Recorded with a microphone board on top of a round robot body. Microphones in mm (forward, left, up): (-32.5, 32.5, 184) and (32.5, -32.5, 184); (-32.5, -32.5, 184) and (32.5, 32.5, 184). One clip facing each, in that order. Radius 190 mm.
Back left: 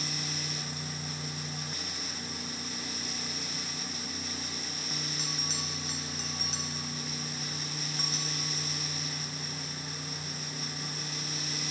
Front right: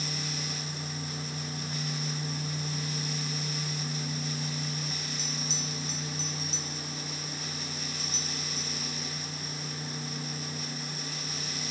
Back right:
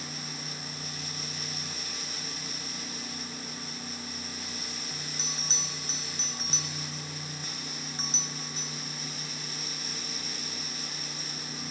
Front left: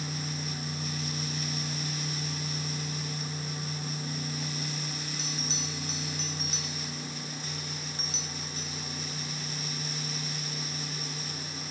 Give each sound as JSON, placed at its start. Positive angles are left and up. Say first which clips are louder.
{"t": 5.2, "sound": "a bell", "louder": "front right 2 dB, front left 3 dB", "azimuth_deg": 165, "distance_m": 1.2}